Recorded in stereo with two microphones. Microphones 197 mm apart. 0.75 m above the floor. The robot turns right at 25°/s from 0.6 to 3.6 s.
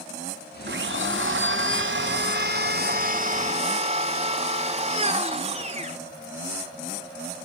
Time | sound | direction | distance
0.7 | a blender | 105° right | 2.5 m